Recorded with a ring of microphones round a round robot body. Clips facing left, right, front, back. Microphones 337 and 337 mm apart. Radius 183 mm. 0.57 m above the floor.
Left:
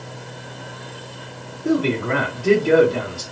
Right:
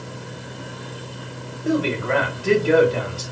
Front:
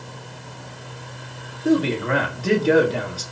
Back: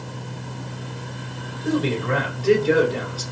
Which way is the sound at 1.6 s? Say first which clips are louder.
Left 2 dB, front 3 dB; 35° left.